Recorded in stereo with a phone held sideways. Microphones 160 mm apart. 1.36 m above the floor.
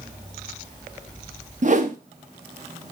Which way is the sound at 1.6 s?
50° right (ahead or behind).